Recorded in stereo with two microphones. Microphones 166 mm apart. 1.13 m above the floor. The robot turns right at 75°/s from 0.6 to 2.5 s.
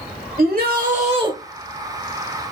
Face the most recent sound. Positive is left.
turn(degrees=60)